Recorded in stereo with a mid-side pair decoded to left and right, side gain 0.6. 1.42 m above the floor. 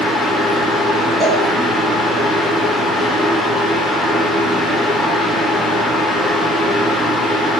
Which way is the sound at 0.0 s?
15° left.